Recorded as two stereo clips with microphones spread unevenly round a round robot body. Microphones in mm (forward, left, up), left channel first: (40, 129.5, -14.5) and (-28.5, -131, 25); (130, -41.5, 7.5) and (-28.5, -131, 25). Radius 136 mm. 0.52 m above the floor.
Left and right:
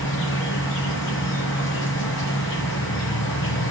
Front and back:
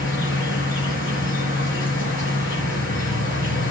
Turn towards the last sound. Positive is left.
turn(degrees=30)